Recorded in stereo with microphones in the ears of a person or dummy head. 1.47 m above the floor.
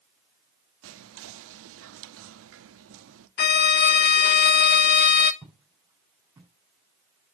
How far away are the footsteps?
About 4.5 m.